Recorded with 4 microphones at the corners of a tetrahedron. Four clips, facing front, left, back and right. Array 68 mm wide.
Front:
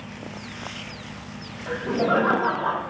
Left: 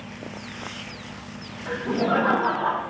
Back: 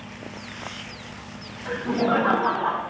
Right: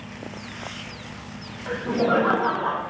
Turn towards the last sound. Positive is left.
turn(degrees=170)